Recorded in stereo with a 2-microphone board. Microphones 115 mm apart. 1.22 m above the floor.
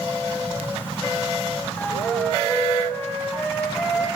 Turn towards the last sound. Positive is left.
turn(degrees=15)  # may be behind; listen again after turning